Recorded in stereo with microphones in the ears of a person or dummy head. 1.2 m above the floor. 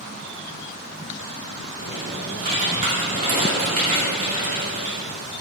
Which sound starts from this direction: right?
Typing on a keyboard, at 1.8 s.